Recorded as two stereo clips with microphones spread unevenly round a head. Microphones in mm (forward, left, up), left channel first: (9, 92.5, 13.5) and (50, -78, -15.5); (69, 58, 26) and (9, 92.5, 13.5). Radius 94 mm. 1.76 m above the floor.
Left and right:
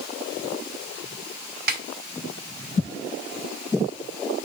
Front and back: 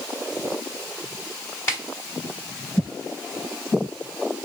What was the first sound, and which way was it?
A snare drum, 70° right.